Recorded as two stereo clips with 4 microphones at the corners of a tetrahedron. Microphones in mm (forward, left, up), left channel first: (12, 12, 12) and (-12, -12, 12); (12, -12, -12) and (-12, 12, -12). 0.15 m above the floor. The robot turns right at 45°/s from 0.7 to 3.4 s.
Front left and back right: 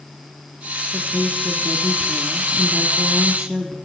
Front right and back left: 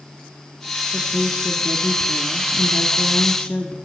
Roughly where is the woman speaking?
Behind.